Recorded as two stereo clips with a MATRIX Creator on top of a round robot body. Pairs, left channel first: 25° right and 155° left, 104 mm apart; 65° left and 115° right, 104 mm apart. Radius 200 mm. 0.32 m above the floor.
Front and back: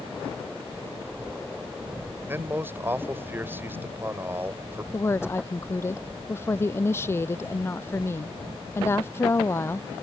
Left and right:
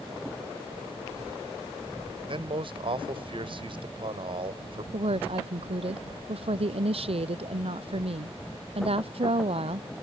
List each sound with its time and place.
2.2 s a man speaking: 135° right
4.9 s a woman speaking: 90° right